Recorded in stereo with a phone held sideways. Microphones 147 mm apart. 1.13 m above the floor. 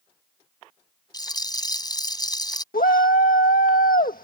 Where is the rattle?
30° left (ahead or behind).